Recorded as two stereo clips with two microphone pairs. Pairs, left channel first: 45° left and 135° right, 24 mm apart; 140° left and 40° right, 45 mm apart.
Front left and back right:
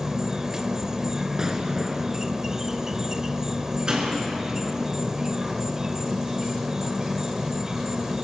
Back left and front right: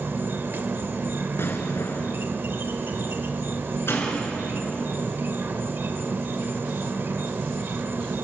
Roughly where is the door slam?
Behind.